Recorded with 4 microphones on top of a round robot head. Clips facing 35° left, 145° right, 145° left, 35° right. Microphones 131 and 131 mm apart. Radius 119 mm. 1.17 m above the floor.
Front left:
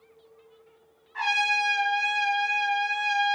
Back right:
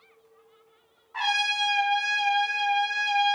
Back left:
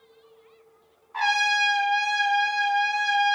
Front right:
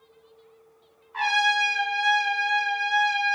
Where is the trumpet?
165° right, 1.0 m.